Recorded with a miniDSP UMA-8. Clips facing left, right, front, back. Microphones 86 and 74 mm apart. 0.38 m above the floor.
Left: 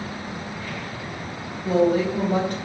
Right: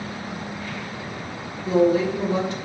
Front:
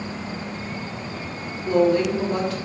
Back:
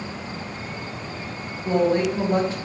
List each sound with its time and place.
1.6 s a woman speaking: 120° left, 2.5 m